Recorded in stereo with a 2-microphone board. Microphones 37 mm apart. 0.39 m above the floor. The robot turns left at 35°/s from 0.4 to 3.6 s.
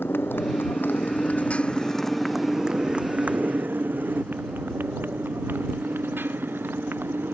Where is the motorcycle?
85° left; by 7.3 s 75° right (ahead or behind).